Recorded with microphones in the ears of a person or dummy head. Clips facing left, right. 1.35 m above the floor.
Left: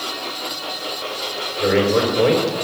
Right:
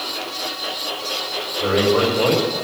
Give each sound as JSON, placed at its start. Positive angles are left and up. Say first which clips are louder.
{"t": 1.6, "sound": "a man speaking", "louder": "left 1 dB", "side_deg": 35, "distance_m": 5.0}